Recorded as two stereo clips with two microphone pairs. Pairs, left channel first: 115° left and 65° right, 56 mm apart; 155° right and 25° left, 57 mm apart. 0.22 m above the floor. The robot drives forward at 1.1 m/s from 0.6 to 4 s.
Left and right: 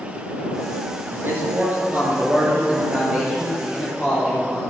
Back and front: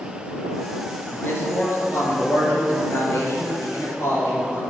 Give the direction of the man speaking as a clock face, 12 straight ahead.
4 o'clock.